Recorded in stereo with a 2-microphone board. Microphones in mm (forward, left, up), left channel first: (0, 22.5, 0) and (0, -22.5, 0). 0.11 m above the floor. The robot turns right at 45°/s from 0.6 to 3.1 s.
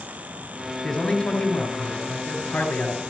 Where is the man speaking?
25° left, 1.8 m; by 3.0 s 120° left, 1.8 m.